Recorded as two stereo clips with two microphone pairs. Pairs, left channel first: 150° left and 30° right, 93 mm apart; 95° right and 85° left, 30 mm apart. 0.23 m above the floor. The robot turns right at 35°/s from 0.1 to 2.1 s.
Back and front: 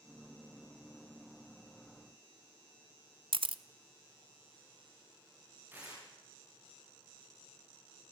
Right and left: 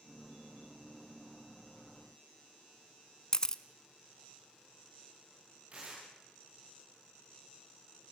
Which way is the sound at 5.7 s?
35° left.